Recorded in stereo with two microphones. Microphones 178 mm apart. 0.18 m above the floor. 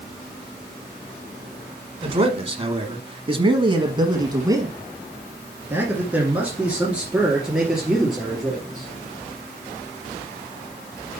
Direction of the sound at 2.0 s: 35° right (ahead or behind).